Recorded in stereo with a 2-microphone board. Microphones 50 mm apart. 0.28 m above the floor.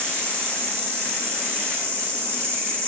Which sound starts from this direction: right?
An insect, at 0.0 s.